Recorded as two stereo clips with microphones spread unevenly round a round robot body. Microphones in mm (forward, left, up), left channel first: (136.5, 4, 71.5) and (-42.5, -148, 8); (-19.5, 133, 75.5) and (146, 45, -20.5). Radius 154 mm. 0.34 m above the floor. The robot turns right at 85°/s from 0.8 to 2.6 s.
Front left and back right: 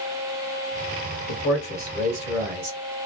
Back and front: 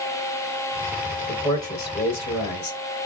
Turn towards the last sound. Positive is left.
turn(degrees=160)